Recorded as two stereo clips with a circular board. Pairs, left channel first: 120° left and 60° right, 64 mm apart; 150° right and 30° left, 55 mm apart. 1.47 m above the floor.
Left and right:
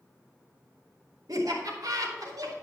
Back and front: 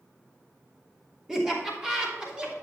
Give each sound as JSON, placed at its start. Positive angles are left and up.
{"t": 1.3, "sound": "laughter", "azimuth_deg": -50, "distance_m": 2.5}